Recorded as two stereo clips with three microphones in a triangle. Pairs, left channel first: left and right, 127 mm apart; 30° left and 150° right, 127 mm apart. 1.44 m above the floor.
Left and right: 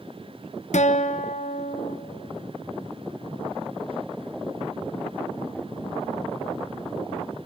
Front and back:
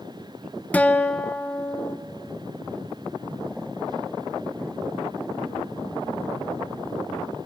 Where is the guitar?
105° left, 0.8 m.